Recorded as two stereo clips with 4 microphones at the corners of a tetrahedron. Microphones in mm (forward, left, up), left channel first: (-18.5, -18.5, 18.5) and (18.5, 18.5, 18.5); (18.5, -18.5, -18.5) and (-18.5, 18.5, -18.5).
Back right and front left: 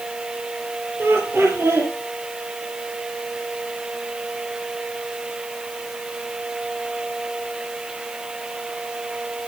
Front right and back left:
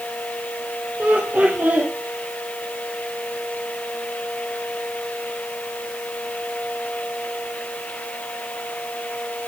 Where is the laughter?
80° left, 4.5 m.